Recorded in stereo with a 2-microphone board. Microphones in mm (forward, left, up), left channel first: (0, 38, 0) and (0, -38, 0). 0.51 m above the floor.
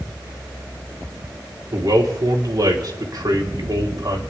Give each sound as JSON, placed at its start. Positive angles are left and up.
{"t": 1.7, "sound": "a man speaking", "side_deg": -65, "distance_m": 2.5}